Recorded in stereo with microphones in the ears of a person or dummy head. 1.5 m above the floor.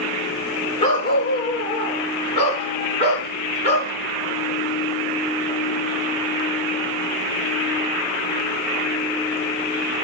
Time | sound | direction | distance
0.8 | a dog barking | 40° left (ahead or behind) | 9 m